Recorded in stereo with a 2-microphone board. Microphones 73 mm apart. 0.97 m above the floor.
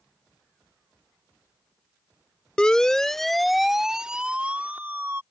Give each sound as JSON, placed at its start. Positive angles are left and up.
{"t": 2.6, "sound": "a siren", "side_deg": 10}